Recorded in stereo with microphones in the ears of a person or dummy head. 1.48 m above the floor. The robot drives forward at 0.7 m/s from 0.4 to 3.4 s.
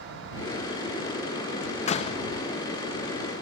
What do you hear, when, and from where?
1.6 s a door slam: 45° left (ahead or behind), 1.2 m; by 2.2 s 35° left (ahead or behind), 1.5 m